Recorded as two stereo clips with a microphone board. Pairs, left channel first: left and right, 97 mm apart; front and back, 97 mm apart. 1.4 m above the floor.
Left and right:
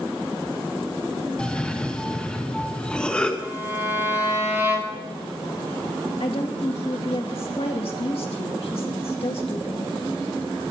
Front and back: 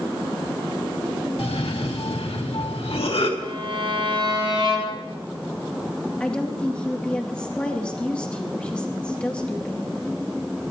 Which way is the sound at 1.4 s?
10° left.